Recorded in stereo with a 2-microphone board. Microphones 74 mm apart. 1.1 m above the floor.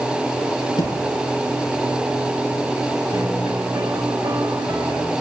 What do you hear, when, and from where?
0.8 s a thud: 80° left, 6.5 m
3.1 s a piano: 75° right (ahead or behind), 4 m